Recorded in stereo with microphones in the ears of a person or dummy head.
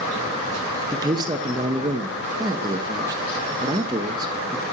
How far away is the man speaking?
About 0.6 m.